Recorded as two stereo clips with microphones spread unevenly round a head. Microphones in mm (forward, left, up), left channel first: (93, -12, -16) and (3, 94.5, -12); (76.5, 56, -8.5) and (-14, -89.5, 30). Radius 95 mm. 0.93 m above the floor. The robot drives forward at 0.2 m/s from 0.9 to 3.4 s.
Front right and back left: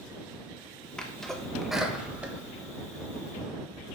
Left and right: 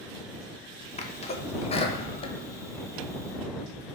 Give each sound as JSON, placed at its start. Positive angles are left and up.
{"t": 1.0, "sound": "a sneeze", "azimuth_deg": 35, "distance_m": 0.8}